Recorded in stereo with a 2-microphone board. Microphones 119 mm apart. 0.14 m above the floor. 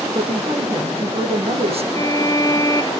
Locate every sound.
0.1 s a woman speaking: 55° right (ahead or behind), 6 m
1.9 s a violin: 35° left (ahead or behind), 0.7 m